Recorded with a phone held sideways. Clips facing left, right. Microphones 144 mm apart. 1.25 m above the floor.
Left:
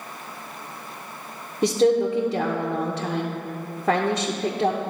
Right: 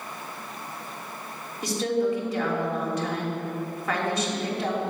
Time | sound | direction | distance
1.6 | a woman speaking | 65° left (ahead or behind) | 0.9 m